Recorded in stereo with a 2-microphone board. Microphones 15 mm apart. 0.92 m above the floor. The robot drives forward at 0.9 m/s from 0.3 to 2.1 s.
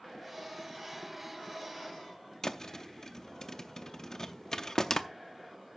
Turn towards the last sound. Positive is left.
turn(degrees=40)  # may be behind; listen again after turning